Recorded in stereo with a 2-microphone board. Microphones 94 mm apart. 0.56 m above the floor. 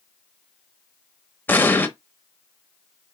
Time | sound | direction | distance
1.5 | an explosion | 20° left (ahead or behind) | 0.6 m